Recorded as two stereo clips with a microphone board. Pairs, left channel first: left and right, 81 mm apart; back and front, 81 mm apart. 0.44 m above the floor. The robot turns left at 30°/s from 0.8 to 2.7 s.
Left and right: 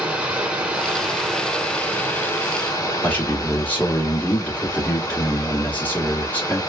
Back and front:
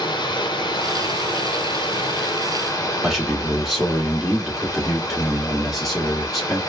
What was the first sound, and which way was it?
Running water, 165° right.